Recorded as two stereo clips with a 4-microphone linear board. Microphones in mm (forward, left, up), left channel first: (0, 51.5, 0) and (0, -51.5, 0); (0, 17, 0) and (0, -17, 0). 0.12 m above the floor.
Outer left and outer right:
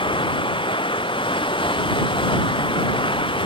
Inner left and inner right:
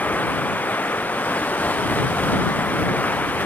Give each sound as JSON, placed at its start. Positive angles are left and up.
{"t": 0.0, "sound": "running water", "side_deg": 55}